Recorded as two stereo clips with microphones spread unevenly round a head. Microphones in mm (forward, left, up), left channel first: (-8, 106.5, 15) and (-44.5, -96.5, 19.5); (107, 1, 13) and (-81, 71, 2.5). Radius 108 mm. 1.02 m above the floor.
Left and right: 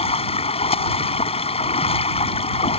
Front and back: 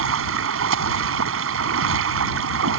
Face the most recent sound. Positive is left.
turn(degrees=145)